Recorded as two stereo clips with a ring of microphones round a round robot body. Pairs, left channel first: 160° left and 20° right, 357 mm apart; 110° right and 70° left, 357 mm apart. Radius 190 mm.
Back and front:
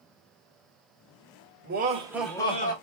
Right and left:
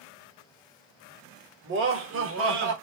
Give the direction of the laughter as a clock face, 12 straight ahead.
11 o'clock.